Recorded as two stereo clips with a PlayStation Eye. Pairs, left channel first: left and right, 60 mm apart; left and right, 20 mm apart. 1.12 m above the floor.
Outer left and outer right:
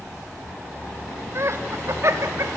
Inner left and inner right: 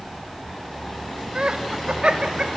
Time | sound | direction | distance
1.4 | laughter | 50° right (ahead or behind) | 1.6 m